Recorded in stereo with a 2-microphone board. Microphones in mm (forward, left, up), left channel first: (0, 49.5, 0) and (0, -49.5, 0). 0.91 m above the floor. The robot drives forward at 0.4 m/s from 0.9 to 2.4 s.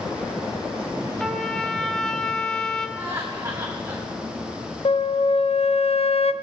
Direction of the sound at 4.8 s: 75° left (ahead or behind).